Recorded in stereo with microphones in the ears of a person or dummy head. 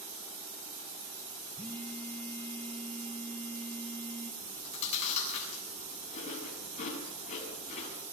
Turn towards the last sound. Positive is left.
turn(degrees=35)  # may be behind; listen again after turning